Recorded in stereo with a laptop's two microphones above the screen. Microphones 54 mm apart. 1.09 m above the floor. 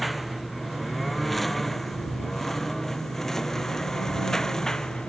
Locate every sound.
0.0 s a lawn mower: centre (ahead or behind); by 5.1 s 10° left (ahead or behind)